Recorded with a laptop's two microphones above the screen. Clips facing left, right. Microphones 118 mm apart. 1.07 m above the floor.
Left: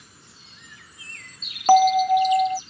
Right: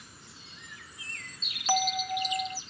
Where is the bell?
60° left (ahead or behind).